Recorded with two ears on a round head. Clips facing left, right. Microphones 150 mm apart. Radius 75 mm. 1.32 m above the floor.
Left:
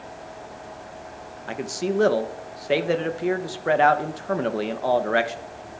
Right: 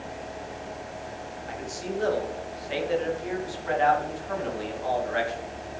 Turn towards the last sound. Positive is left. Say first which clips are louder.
# left 8 dB
turn(degrees=70)  # may be behind; listen again after turning